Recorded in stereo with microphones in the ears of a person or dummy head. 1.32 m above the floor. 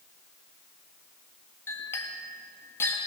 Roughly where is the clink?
Centre.